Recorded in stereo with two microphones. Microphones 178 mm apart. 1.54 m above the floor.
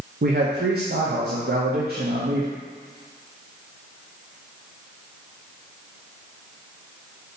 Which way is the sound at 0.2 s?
60° right (ahead or behind).